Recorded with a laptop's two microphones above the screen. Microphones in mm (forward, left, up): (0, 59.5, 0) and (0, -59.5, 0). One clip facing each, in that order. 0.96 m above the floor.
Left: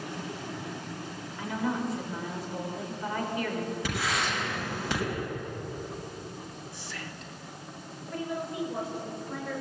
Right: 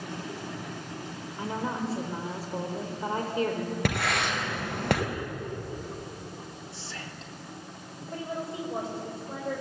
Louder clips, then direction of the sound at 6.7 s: Even; 25° right (ahead or behind).